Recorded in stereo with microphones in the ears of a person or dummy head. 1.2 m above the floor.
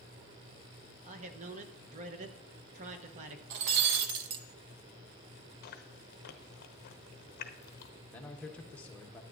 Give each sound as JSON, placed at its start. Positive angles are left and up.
{"t": 1.0, "sound": "a man speaking", "side_deg": -40, "distance_m": 1.0}
{"t": 3.5, "sound": "breaking glass", "side_deg": -60, "distance_m": 0.7}
{"t": 5.6, "sound": "chewing", "side_deg": 50, "distance_m": 0.7}
{"t": 8.1, "sound": "a man speaking", "side_deg": 10, "distance_m": 1.0}